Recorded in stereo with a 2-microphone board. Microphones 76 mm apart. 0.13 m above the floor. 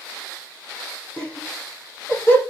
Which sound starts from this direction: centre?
Laughter, at 1.2 s.